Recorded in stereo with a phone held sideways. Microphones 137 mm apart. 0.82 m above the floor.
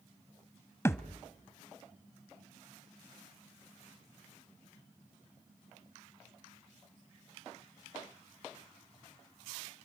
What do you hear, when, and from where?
0.8 s a thud: 20° left (ahead or behind), 0.8 m